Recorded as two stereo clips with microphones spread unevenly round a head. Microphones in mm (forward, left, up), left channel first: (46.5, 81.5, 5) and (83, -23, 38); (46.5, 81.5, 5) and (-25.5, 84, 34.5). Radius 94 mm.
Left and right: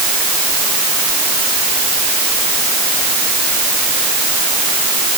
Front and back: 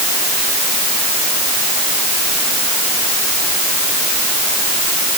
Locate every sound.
Only background noise.